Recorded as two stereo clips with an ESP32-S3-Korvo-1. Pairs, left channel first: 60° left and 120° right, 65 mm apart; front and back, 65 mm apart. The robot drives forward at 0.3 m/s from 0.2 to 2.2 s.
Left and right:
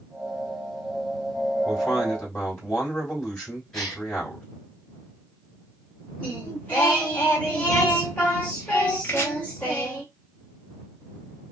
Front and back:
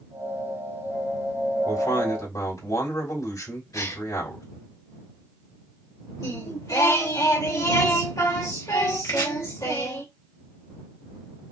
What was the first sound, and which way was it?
A man speaking, 10° right.